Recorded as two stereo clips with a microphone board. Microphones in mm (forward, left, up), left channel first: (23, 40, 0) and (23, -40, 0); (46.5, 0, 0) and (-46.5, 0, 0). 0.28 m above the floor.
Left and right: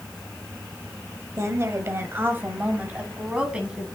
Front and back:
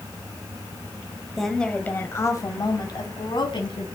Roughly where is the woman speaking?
Right.